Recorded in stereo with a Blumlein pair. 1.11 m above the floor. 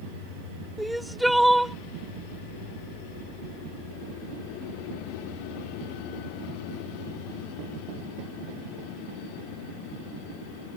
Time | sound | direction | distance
0.8 | crying | straight ahead | ?